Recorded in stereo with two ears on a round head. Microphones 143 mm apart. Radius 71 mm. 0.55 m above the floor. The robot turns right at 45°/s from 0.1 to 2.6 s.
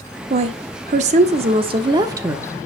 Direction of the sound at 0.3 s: 115° right.